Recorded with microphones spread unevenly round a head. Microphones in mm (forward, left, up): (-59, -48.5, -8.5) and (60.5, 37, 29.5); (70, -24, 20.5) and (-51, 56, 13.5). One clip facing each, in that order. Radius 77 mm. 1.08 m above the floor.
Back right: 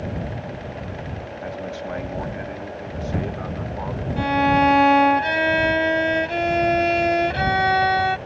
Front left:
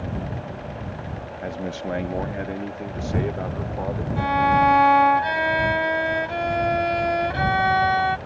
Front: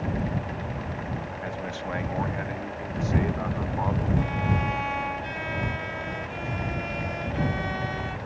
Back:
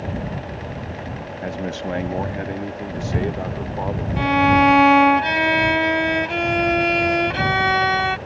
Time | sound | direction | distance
1.4 | a man speaking | 100° left | ?
4.2 | a violin | 150° left | ?